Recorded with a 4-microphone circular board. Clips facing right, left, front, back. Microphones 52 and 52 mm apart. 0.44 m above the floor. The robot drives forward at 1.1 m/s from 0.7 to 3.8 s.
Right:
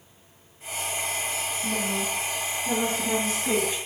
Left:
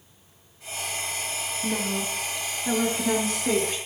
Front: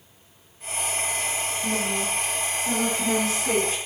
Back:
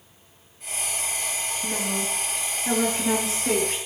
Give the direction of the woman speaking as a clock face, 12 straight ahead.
8 o'clock.